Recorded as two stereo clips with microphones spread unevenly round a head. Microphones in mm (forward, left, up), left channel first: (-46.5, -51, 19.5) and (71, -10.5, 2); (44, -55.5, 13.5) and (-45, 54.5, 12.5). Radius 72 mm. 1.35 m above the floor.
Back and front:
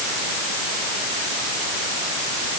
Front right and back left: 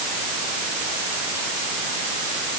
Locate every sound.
Only background noise.